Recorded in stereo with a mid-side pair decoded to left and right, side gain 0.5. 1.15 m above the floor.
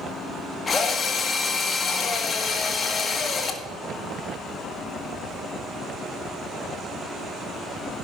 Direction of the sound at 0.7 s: 35° left.